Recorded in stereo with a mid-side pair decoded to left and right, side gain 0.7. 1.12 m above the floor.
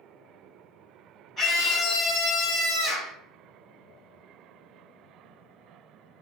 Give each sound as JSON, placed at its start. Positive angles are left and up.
{"t": 1.4, "sound": "a scream", "azimuth_deg": 35, "distance_m": 1.5}